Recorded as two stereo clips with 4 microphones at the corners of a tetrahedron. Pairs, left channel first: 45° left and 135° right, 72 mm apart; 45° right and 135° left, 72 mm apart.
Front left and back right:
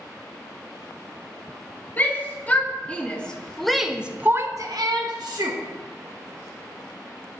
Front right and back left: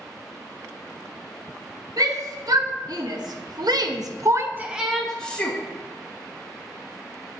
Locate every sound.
2.0 s a shout: 110° left, 3 m; by 5.6 s 115° right, 1.6 m